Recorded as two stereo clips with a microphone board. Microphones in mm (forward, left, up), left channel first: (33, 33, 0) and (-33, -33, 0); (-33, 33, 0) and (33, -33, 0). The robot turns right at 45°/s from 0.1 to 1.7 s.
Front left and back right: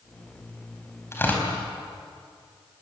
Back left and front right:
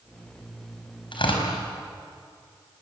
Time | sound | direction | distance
1.1 | tearing paper | 110° left | 5 m